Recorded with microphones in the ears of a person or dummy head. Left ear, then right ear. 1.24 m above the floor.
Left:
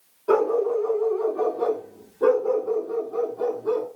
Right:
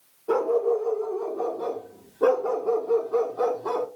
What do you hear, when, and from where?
0.3 s a dog barking: 50° left (ahead or behind), 1.5 m; by 3.9 s 55° right (ahead or behind), 1.3 m